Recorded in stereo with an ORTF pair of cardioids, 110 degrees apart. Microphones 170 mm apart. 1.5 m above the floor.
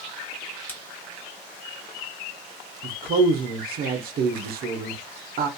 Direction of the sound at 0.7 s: 10° left.